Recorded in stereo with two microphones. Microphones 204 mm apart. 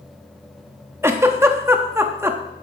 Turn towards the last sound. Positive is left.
turn(degrees=-10)  # may be behind; listen again after turning